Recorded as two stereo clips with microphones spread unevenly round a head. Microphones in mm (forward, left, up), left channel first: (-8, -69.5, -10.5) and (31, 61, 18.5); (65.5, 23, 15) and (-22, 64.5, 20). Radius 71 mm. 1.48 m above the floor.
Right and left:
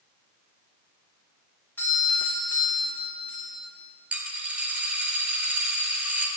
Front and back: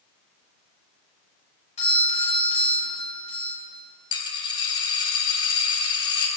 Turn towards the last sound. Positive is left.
turn(degrees=5)